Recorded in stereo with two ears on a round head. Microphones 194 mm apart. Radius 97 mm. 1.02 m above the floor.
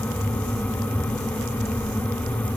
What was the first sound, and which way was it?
Only background noise.